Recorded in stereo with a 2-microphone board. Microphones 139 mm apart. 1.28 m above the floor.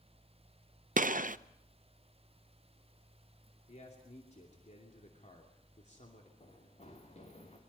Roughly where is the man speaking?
Left.